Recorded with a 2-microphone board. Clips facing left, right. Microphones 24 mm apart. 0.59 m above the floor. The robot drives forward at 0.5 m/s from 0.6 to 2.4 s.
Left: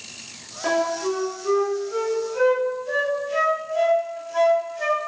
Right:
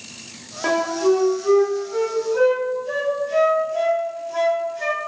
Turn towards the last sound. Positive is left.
turn(degrees=-10)  # may be behind; listen again after turning